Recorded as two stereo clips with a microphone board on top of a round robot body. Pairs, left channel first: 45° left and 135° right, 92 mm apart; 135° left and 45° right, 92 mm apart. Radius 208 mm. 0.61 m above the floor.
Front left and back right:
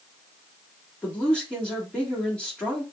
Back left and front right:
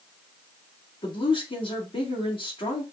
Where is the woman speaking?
120° left, 2 m.